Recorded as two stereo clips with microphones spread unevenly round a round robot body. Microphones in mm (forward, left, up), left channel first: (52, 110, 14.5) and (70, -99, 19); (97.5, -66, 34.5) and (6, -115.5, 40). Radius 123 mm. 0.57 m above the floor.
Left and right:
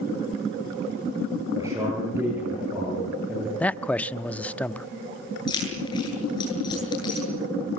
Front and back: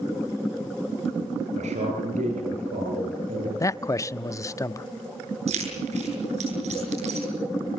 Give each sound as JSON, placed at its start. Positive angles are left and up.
{"t": 1.6, "sound": "a man speaking", "azimuth_deg": -165, "distance_m": 8.5}
{"t": 3.6, "sound": "a man speaking", "azimuth_deg": 20, "distance_m": 0.6}
{"t": 5.5, "sound": "keys jangling", "azimuth_deg": 170, "distance_m": 7.5}